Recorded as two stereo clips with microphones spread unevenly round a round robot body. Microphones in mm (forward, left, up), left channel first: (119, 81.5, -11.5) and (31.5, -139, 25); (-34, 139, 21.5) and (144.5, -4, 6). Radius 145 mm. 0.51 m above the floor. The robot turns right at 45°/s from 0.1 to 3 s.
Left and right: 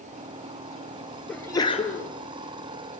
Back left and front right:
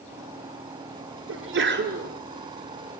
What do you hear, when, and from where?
1.3 s a sneeze: 20° right, 7 m; by 2.1 s 20° left, 7 m